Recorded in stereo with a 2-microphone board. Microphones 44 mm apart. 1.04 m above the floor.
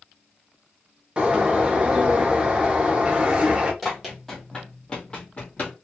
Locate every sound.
1.2 s a bird: 25° right (ahead or behind), 0.7 m
3.8 s running footsteps: centre (ahead or behind), 1.6 m; by 5.7 s 40° left (ahead or behind), 1.6 m